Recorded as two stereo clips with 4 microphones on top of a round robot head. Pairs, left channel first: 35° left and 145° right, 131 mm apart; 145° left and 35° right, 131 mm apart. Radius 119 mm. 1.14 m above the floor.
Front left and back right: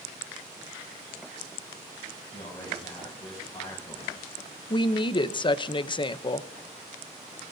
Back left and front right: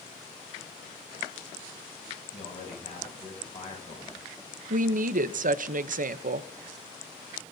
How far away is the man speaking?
About 7.5 m.